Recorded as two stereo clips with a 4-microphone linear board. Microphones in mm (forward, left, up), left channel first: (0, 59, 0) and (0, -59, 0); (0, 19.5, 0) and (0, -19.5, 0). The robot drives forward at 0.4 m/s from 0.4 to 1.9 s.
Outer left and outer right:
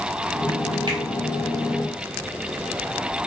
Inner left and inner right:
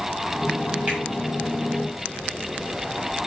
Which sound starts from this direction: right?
A finger snap, at 0.9 s.